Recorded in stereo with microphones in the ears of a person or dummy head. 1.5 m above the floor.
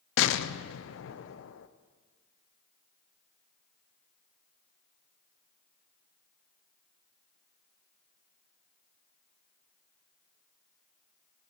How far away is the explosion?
About 0.5 m.